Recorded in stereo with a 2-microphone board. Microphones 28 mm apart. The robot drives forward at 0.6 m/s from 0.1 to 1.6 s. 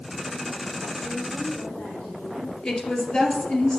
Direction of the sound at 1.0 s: 70° left (ahead or behind).